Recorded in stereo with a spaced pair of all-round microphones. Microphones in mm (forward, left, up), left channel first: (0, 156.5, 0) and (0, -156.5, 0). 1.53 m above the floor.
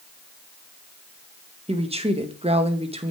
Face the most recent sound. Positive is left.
turn(degrees=-20)  # may be behind; listen again after turning